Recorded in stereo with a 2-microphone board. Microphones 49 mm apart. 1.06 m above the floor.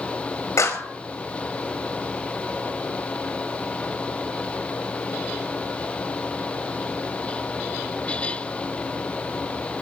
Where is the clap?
85° left, 5 m.